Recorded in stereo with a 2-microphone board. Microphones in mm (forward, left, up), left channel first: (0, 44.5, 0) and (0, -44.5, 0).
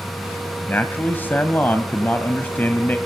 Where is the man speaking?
20° left (ahead or behind), 1.5 m.